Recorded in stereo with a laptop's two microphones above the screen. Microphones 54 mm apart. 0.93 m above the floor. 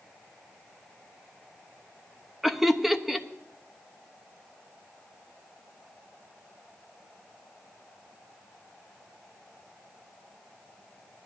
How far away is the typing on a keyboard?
No typing on a keyboard in this recording.